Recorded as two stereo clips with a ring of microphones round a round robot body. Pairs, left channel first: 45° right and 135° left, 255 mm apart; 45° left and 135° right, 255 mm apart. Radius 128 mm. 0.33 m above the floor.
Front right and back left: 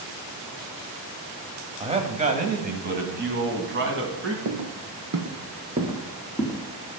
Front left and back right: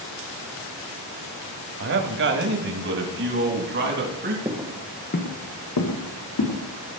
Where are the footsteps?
145° left, 1.4 m; by 6.6 s 45° left, 2.5 m.